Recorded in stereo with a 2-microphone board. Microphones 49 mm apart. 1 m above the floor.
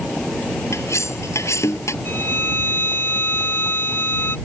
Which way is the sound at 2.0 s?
50° left (ahead or behind).